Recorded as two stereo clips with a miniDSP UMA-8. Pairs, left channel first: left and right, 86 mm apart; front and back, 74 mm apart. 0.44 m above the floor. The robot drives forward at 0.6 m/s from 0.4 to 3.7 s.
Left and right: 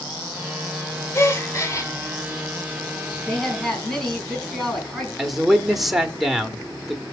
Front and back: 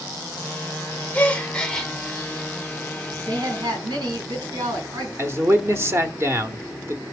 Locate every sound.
1.1 s a gasp: 60° left, 1.8 m; by 1.9 s 80° left, 1.7 m
3.3 s a woman speaking: 175° left, 4 m
5.2 s a man speaking: 175° right, 1.1 m